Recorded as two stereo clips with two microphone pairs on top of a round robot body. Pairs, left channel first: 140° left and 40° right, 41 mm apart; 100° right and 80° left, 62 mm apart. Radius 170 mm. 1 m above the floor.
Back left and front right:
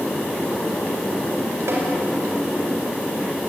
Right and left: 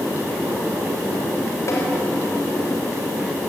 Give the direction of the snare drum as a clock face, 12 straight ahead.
2 o'clock.